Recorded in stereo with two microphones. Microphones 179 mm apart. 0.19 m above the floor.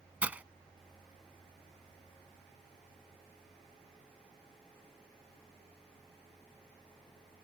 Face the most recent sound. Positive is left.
turn(degrees=-10)  # may be behind; listen again after turning